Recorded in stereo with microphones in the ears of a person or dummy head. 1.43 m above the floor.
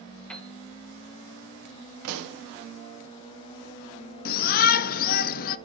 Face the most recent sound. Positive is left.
turn(degrees=45)  # may be behind; listen again after turning